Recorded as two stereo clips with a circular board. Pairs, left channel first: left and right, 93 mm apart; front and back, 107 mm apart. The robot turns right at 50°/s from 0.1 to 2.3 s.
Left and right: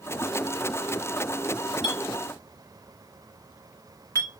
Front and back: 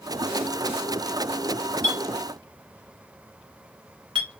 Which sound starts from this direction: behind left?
A clink, at 1.8 s.